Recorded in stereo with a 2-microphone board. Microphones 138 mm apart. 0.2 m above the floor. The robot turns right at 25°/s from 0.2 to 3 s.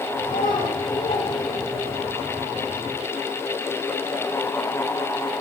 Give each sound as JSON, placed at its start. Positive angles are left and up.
{"t": 0.2, "sound": "a child speaking", "side_deg": 80, "distance_m": 6.5}